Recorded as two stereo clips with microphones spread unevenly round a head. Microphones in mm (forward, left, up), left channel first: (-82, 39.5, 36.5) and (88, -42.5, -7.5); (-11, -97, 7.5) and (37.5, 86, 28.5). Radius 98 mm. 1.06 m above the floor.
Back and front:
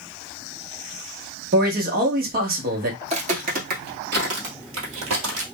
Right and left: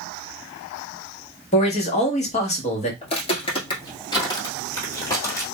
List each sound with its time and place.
1.5 s a man speaking: 55° right, 1.2 m
3.0 s footsteps: 80° right, 1.1 m; by 5.4 s 25° right, 1.8 m